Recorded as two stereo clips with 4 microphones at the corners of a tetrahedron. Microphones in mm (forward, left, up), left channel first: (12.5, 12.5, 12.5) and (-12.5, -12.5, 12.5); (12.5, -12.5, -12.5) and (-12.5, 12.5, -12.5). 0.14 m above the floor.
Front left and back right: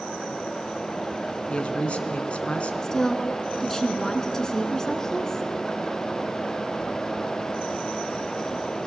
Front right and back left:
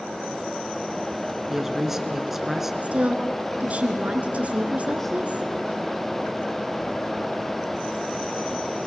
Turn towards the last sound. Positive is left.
turn(degrees=110)